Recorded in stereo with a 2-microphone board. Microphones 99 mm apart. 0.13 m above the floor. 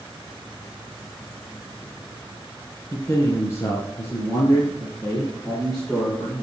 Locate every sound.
2.9 s a man speaking: 30° left (ahead or behind), 1.4 m; by 6.4 s 20° left (ahead or behind), 4 m